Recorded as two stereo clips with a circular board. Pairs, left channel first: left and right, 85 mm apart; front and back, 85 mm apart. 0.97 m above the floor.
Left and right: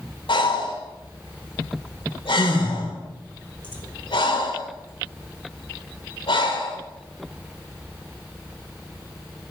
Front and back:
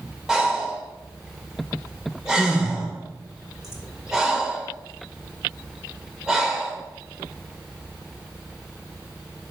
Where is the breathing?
95° left, 2.5 m.